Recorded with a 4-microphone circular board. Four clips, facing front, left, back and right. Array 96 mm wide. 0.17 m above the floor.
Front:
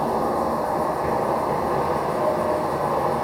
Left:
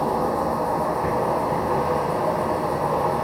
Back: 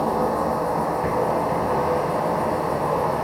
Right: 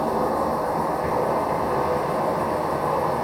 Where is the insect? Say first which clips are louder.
Even, even; 165° left, 1.5 m.